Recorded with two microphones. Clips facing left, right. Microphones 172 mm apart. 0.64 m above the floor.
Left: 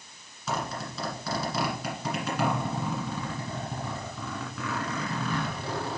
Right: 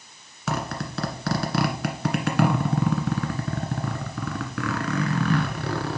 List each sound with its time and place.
0.5 s a zipper: 75° right (ahead or behind), 1.5 m